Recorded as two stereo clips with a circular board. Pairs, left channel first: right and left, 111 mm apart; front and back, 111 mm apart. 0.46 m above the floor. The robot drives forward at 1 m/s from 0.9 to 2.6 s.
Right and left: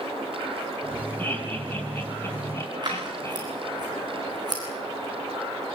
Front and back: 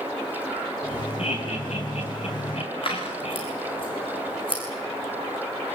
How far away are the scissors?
About 6 m.